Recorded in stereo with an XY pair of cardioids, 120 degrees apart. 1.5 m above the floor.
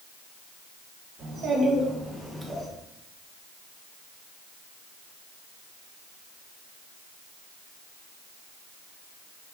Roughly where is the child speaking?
Ahead right.